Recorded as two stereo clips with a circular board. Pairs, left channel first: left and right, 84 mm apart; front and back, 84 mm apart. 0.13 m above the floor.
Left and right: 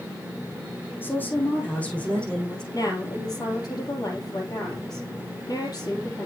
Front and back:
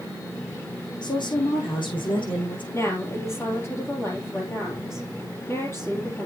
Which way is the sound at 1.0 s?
25° left.